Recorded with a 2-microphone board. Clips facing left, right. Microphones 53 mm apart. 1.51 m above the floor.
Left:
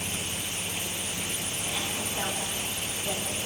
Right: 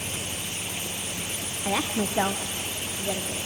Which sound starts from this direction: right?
A woman speaking, at 1.6 s.